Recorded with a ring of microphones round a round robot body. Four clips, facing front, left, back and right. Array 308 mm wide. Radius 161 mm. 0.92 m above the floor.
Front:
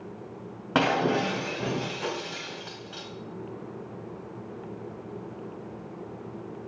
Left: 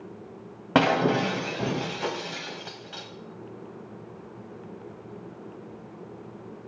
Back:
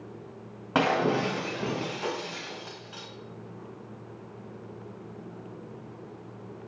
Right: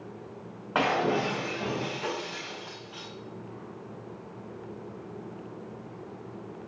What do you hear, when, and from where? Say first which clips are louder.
0.8 s breaking glass: left 4 dB, front 1 dB; 85° left, 4 m